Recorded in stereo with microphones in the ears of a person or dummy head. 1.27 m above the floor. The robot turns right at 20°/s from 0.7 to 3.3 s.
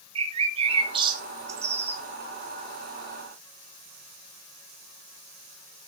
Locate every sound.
0.1 s a bird: 40° right (ahead or behind), 1.4 m; by 2.0 s 10° right (ahead or behind), 1.4 m